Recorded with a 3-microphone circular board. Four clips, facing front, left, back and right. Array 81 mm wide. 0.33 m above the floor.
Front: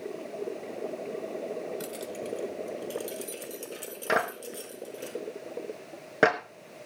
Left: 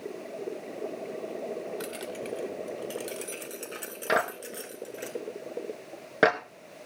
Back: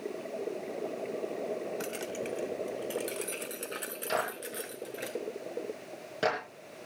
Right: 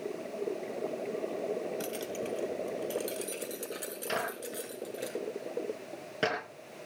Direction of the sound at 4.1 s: 45° left.